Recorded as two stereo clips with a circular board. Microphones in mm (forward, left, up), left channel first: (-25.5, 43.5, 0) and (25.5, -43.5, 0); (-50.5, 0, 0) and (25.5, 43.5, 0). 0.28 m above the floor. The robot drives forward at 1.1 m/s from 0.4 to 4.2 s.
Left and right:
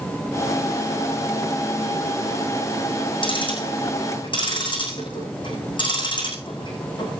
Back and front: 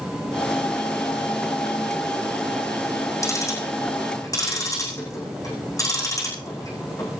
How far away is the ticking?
About 6 m.